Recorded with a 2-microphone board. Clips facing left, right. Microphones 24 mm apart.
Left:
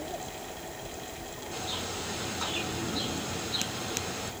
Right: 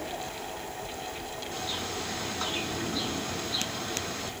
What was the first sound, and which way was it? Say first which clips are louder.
A bird: right 1 dB; 15° right (ahead or behind).